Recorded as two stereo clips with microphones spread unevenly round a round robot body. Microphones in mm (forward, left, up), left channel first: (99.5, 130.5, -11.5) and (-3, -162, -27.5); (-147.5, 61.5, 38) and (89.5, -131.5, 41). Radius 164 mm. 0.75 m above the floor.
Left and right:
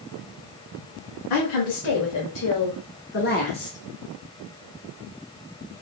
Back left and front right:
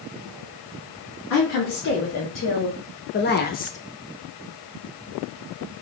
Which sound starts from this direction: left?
A woman speaking, at 1.3 s.